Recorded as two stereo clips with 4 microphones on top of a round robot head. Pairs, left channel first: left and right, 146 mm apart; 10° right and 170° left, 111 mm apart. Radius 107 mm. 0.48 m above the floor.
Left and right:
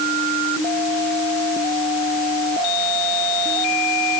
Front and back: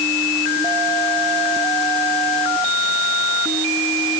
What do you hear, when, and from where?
Only background noise.